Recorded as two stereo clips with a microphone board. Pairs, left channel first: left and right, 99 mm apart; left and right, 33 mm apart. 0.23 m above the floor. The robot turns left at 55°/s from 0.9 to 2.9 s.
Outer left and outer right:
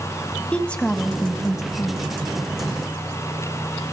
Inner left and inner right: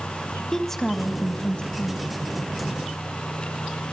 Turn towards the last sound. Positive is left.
turn(degrees=50)